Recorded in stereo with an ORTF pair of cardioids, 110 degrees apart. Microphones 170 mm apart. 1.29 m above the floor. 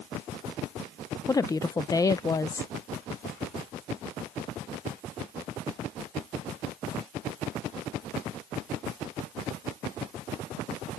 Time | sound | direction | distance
1.3 | a woman speaking | 20° left | ?